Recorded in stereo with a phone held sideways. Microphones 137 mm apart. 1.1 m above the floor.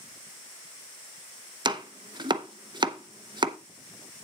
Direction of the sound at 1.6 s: 35° right (ahead or behind).